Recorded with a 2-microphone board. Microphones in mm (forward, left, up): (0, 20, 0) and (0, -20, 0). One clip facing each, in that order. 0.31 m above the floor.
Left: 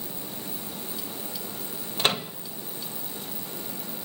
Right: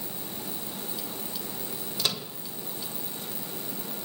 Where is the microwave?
40° left (ahead or behind), 1.5 m.